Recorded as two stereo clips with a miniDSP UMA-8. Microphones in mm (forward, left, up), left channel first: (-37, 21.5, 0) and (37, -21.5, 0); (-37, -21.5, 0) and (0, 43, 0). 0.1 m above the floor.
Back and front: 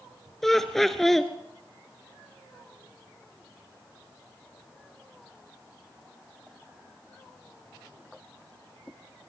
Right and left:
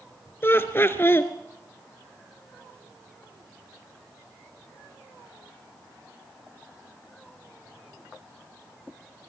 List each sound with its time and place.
0.4 s laughter: 125° right, 1.5 m